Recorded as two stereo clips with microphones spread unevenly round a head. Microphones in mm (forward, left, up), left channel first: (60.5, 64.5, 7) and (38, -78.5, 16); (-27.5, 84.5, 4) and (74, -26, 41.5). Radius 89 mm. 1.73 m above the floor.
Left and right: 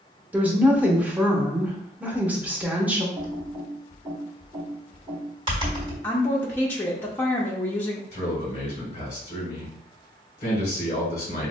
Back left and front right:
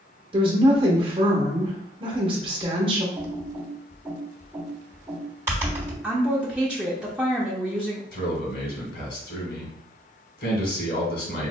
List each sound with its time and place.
0.3 s a woman speaking: 25° right, 0.9 m
3.1 s typing on a keyboard: 90° right, 1.6 m
6.0 s a woman speaking: 10° left, 0.5 m
8.1 s a man speaking: 130° left, 1.7 m